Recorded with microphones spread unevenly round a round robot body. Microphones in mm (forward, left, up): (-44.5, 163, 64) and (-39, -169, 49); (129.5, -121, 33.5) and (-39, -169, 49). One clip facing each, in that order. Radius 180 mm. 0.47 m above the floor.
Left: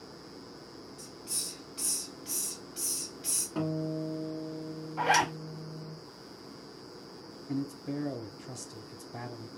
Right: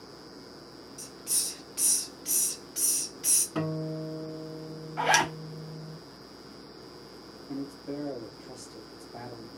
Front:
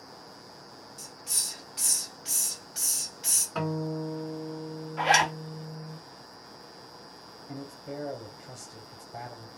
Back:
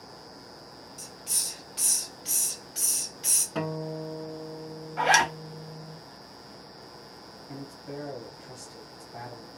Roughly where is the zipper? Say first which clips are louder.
Right 1 dB, back 1 dB; behind right.